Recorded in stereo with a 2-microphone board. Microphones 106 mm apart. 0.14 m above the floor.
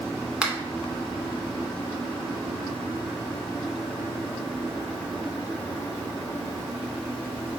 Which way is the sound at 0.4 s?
10° right (ahead or behind).